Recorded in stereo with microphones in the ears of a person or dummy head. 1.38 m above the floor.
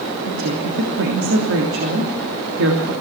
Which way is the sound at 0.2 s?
75° right (ahead or behind).